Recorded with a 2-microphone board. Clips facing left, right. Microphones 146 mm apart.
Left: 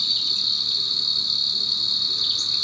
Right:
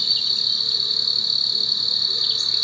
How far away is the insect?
About 1.8 m.